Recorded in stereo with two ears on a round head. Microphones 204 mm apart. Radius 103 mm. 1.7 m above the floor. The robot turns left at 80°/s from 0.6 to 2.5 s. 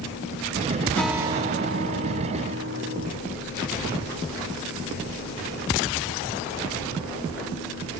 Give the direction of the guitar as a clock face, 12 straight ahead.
12 o'clock.